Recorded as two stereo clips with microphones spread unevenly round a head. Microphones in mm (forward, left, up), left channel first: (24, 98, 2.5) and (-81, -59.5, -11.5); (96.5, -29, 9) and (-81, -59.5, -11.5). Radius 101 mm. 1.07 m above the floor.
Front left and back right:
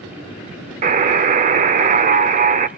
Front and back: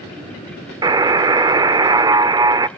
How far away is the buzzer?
About 0.8 m.